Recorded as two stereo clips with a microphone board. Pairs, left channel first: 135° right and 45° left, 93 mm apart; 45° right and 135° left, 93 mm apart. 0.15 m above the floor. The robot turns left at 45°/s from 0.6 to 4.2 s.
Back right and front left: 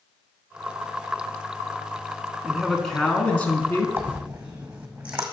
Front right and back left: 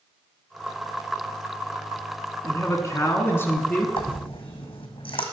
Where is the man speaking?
35° right, 1.2 m; by 3.9 s 95° right, 1.2 m.